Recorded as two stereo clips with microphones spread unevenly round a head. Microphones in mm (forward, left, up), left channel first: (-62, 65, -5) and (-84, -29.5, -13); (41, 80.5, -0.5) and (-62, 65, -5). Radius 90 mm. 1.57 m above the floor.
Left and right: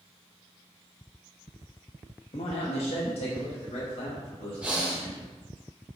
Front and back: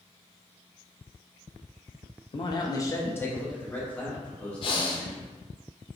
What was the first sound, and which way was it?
A man speaking, 45° left.